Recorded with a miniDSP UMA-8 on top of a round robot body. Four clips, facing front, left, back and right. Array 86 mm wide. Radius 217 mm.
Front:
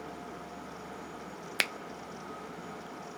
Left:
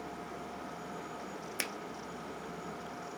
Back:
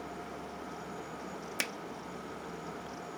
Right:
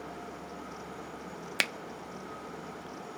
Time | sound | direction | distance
1.6 | a finger snap | 50° right | 0.7 m